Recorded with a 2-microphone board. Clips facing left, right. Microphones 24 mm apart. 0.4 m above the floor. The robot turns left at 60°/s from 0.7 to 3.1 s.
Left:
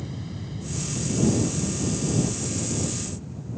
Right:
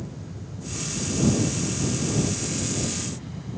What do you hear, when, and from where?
0.0 s an aircraft: 55° left; by 3.6 s 90° right